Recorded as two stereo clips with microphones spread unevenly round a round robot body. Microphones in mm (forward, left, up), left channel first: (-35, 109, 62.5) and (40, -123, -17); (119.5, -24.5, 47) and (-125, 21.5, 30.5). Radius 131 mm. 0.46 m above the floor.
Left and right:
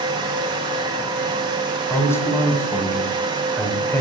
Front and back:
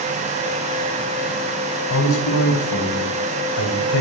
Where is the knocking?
No knocking in this recording.